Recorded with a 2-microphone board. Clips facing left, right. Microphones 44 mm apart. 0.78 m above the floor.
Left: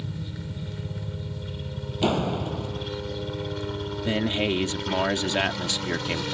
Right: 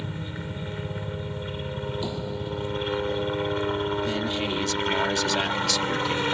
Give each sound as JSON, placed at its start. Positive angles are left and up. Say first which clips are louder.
{"t": 0.0, "sound": "a helicopter", "louder": "right 2 dB", "side_deg": -35}
{"t": 2.0, "sound": "a door slam", "louder": "left 6 dB", "side_deg": 65}
{"t": 4.0, "sound": "a man speaking", "louder": "left 2 dB", "side_deg": 30}